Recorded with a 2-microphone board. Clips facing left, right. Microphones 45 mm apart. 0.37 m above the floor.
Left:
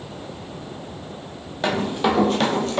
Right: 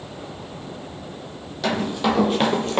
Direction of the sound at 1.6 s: 25° left (ahead or behind).